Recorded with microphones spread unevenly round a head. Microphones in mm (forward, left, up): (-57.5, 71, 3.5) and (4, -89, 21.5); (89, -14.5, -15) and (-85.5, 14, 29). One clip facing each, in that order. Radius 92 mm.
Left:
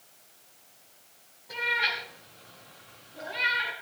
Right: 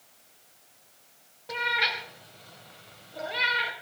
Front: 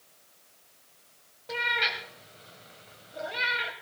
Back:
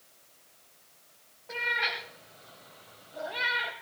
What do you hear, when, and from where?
1.5 s a cat meowing: 55° right, 3.5 m; by 3.7 s 75° right, 3 m